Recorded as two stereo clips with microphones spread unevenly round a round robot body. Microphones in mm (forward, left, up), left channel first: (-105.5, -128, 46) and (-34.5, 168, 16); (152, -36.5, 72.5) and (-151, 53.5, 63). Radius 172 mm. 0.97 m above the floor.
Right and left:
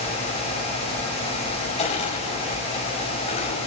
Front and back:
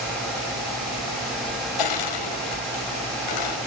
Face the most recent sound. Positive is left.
turn(degrees=-30)